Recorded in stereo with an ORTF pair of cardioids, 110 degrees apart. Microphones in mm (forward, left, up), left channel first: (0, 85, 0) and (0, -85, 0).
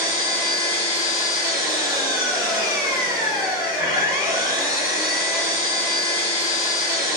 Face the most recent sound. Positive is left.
turn(degrees=65)